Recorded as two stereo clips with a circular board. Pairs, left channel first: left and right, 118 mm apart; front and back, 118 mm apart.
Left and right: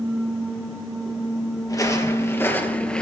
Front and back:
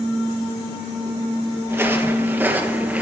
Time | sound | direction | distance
1.7 | footsteps | 125° left | 1.6 m